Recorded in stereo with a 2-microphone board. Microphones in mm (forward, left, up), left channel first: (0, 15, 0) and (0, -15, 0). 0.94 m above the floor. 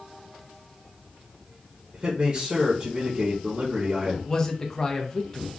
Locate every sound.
1.9 s a man speaking: 45° right (ahead or behind), 0.7 m
4.3 s a man speaking: 20° left (ahead or behind), 0.6 m